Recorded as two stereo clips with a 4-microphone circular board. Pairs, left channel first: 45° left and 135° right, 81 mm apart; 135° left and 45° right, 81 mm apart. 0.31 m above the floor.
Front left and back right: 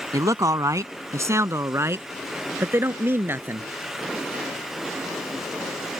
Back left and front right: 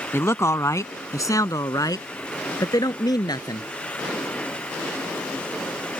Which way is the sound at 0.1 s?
170° right.